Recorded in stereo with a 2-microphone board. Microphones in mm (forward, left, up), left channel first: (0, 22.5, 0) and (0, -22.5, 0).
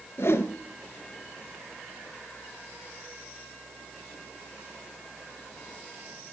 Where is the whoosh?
65° left (ahead or behind), 0.9 m.